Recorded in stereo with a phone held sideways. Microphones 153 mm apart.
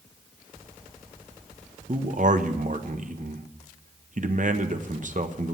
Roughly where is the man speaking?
Right.